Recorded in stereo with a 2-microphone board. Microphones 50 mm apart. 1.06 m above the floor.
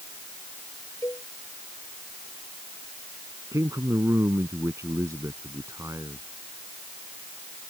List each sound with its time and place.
1.0 s a cowbell: 70° left (ahead or behind)
3.5 s a man speaking: 90° right